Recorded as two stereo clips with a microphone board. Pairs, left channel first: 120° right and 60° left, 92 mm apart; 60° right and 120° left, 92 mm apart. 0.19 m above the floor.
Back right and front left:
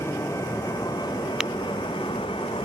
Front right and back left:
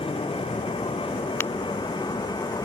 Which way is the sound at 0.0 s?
60° right.